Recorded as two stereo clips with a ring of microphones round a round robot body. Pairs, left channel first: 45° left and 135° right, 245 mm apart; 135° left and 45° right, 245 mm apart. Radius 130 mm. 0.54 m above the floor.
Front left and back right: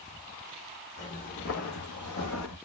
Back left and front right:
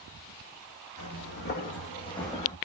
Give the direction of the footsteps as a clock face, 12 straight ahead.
8 o'clock.